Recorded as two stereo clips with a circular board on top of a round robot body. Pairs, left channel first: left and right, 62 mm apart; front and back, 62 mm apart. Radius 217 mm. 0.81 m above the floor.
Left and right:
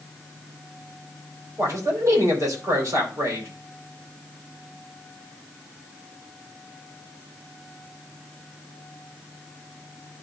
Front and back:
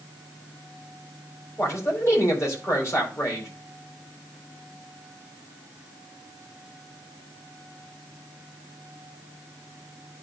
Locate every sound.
1.6 s a man speaking: 50° right, 4.5 m